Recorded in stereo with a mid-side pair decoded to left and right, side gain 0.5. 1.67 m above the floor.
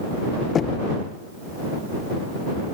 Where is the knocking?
45° left.